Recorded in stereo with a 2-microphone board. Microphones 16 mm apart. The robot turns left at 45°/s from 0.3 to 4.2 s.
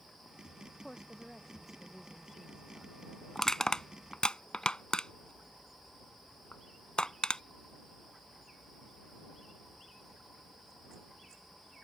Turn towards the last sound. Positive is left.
turn(degrees=60)  # may be behind; listen again after turning